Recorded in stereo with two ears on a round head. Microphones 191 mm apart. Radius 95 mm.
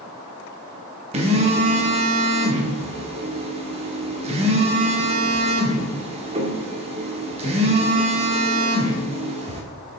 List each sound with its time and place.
1.1 s a phone buzzing: 30° right (ahead or behind), 0.9 m